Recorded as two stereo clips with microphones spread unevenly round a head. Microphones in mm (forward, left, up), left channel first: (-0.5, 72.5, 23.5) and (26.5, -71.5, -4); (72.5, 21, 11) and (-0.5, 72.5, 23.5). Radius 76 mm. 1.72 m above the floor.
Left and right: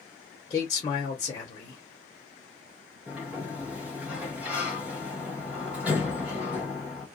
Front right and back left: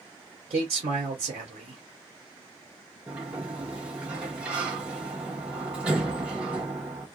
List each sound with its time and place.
0.5 s a man speaking: 165° left, 1.1 m
3.1 s a sliding door: 175° right, 0.8 m